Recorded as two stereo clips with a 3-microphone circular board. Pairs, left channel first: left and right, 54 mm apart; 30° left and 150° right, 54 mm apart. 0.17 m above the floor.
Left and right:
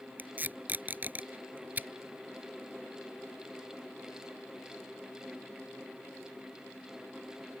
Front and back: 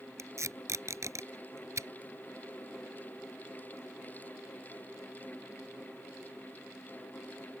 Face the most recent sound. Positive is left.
turn(degrees=-145)